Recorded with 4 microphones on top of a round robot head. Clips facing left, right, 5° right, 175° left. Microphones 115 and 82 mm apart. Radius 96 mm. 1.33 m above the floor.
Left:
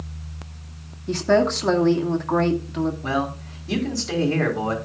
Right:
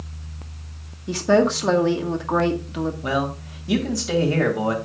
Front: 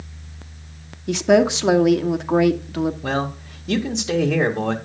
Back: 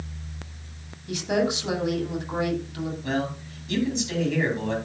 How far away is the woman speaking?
About 1.5 m.